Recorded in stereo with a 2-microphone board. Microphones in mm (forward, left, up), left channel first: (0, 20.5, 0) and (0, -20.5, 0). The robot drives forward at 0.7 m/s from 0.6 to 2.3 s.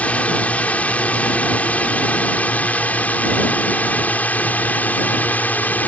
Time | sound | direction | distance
0.0 | a drone | 35° left (ahead or behind) | ?